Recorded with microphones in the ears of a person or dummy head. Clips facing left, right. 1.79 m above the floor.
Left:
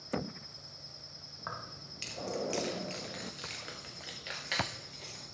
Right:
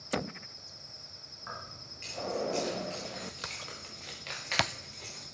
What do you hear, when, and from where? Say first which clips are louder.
1.4 s keys jangling: left 1 dB; 60° left (ahead or behind), 1.7 m; by 5.2 s centre (ahead or behind), 3 m